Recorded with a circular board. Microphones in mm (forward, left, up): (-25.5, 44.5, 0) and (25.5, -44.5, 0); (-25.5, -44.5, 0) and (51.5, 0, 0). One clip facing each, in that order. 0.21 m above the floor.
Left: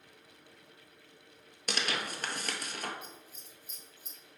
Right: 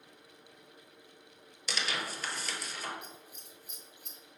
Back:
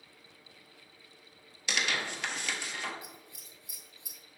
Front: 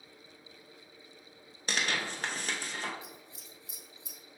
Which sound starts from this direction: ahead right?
Scissors, at 3.0 s.